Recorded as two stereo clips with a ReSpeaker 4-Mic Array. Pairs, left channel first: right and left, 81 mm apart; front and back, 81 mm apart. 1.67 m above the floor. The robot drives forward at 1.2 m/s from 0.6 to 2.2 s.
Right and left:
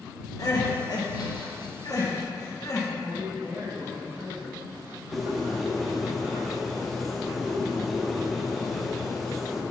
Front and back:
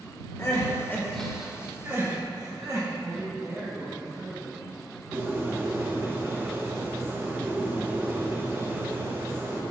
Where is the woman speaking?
125° left, 2 m.